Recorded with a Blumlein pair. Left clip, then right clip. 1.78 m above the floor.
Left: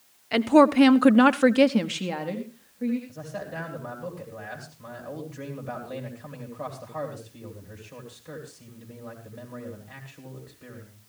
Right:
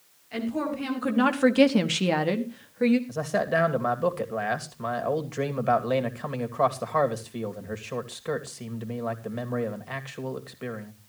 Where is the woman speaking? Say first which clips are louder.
Left 13 dB; 60° left, 1.4 m; by 3.0 s 40° right, 2.0 m.